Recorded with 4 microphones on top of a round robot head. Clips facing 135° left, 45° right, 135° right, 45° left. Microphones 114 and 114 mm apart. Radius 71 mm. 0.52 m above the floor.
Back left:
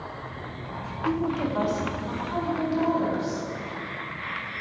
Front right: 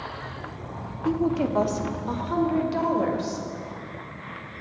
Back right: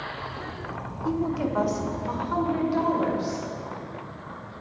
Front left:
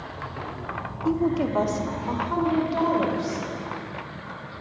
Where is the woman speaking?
5° left, 1.0 m; by 3.5 s 25° right, 3 m.